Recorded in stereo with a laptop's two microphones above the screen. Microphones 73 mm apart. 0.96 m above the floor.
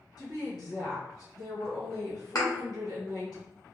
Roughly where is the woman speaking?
Left.